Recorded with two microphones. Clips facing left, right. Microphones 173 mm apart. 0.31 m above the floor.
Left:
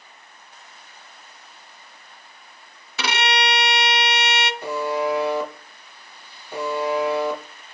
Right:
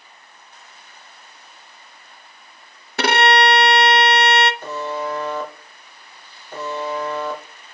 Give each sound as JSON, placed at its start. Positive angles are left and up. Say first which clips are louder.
{"t": 3.0, "sound": "a violin", "louder": "right 8 dB", "side_deg": -55, "distance_m": 0.6}
{"t": 4.6, "sound": "a buzzer", "louder": "left 3 dB", "side_deg": 10, "distance_m": 2.5}